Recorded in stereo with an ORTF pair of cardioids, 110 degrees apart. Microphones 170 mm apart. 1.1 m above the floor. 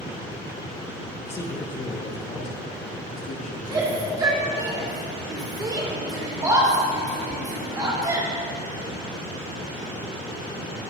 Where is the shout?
20° right, 2 m.